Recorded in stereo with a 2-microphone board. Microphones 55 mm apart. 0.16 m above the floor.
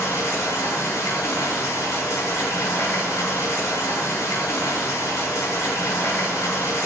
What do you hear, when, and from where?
0.0 s running water: 70° left (ahead or behind), 1.0 m